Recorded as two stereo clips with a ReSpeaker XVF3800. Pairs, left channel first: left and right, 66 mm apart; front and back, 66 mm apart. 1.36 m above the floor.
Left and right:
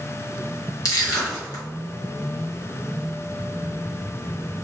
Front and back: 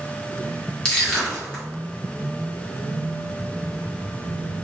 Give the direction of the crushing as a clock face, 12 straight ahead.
9 o'clock.